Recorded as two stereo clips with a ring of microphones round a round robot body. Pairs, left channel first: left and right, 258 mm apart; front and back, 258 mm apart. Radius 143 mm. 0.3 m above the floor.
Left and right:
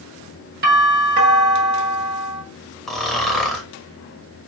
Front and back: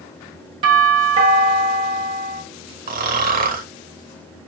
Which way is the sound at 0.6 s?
120° right.